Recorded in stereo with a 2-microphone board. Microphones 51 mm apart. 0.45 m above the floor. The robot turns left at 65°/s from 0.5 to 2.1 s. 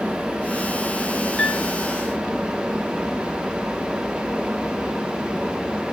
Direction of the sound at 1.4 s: 20° left (ahead or behind).